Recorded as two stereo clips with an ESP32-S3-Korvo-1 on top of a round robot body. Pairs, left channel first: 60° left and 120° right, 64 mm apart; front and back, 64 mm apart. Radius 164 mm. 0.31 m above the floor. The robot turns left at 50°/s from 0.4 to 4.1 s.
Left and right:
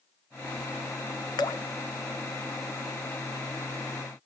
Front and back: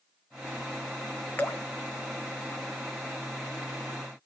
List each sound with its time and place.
1.4 s dripping: 60° left, 0.8 m; by 1.6 s 50° left, 0.8 m